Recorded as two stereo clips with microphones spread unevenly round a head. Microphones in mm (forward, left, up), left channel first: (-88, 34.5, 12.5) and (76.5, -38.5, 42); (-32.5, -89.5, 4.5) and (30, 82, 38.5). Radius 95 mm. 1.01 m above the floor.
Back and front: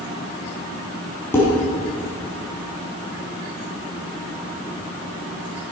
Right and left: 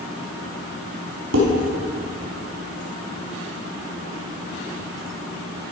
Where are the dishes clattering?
75° left, 5.5 m.